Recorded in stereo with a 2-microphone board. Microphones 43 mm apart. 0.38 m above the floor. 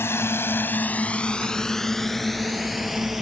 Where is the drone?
65° left (ahead or behind); by 3.2 s 5° right (ahead or behind).